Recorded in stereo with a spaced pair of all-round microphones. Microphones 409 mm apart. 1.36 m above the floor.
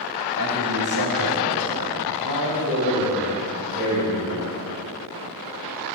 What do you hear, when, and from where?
0.4 s a man speaking: 45° right (ahead or behind), 2.5 m; by 4.5 s 40° right (ahead or behind), 6 m